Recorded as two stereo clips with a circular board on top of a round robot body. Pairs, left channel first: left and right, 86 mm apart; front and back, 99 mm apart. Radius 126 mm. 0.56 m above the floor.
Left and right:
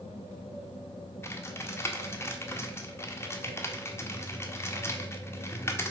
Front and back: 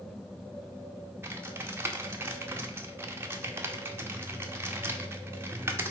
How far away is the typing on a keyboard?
About 1.1 m.